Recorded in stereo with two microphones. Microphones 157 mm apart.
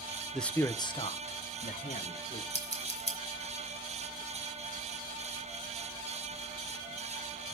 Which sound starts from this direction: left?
Scissors, at 2.5 s.